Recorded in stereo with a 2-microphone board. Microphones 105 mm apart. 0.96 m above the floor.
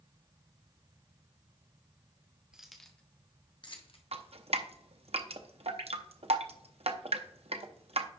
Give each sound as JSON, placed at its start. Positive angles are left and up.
{"t": 2.5, "sound": "keys jangling", "side_deg": -5, "distance_m": 1.3}
{"t": 4.1, "sound": "dripping", "side_deg": -75, "distance_m": 0.7}